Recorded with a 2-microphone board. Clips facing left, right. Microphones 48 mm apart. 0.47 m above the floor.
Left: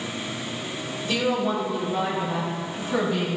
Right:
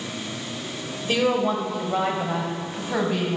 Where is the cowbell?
No cowbell in this recording.